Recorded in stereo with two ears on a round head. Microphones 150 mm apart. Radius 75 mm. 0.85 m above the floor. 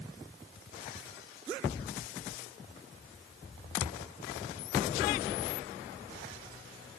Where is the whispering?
No whispering in this recording.